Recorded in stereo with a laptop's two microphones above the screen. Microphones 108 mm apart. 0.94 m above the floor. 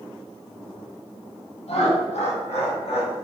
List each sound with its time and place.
1.7 s laughter: 65° left (ahead or behind), 1.1 m